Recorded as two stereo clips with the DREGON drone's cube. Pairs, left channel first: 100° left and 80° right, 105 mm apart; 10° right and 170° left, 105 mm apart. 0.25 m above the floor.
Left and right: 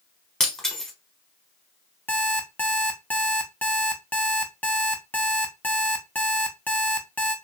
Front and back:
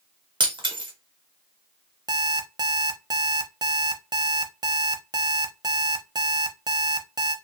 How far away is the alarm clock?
About 0.5 m.